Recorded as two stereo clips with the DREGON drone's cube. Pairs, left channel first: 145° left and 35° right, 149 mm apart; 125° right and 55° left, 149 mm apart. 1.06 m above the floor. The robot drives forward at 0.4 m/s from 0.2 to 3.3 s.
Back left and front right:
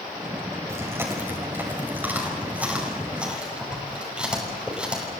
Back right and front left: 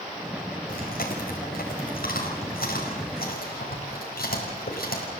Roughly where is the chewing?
Right.